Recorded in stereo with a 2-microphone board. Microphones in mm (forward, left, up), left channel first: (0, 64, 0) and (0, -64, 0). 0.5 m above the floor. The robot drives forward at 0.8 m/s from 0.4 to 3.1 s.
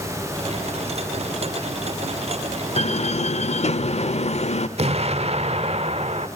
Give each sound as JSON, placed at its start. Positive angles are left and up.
{"t": 2.8, "sound": "a door slam", "side_deg": 55, "distance_m": 1.2}
{"t": 4.8, "sound": "an explosion", "side_deg": -55, "distance_m": 1.1}